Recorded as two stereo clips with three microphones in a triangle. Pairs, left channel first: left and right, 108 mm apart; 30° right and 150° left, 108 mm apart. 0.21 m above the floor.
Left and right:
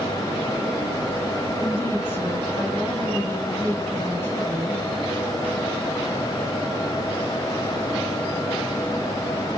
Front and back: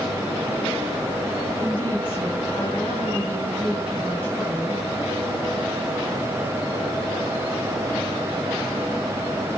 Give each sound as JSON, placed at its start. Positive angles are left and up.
{"t": 1.6, "sound": "a woman speaking", "azimuth_deg": 30, "distance_m": 2.0}